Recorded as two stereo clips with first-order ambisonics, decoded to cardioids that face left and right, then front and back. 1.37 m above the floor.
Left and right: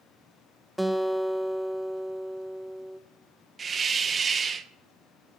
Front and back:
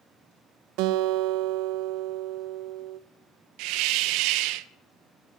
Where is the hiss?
160° right, 0.6 m.